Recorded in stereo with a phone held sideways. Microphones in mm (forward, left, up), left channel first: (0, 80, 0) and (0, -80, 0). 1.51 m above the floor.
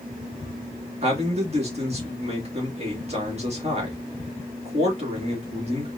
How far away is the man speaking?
About 2.5 m.